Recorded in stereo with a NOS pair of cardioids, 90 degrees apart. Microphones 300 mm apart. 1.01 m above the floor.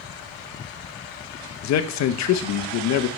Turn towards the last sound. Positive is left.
turn(degrees=70)